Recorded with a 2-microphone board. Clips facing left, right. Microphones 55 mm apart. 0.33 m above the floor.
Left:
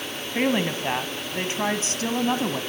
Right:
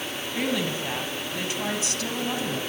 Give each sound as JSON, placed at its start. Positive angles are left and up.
{"t": 0.3, "sound": "a woman speaking", "side_deg": 35, "distance_m": 2.5}